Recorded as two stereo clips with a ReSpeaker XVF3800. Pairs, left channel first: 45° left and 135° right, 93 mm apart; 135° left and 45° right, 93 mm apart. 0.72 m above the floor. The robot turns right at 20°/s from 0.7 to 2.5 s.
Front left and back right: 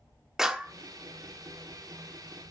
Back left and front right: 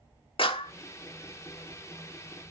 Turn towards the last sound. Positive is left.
turn(degrees=175)